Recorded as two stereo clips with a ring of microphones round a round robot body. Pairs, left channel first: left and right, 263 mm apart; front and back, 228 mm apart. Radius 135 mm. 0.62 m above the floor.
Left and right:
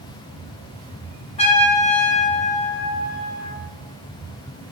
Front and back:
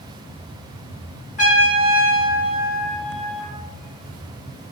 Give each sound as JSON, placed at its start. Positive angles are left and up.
{"t": 1.4, "sound": "a trumpet", "azimuth_deg": 35, "distance_m": 1.4}